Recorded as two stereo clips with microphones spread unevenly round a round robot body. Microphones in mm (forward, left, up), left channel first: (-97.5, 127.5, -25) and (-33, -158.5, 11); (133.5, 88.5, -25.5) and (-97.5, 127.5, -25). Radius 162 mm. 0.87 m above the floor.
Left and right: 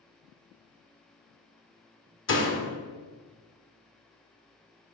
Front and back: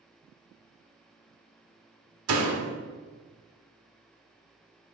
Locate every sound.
2.3 s a door slam: 150° left, 1.3 m